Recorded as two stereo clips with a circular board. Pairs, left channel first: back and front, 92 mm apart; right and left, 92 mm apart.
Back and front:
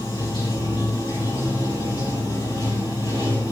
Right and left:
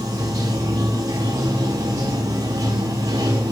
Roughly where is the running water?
Behind left.